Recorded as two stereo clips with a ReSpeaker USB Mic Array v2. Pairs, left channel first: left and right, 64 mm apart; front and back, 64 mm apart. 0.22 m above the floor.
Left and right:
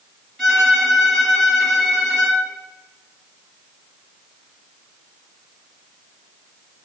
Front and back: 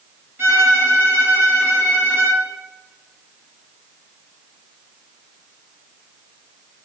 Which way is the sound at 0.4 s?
165° left.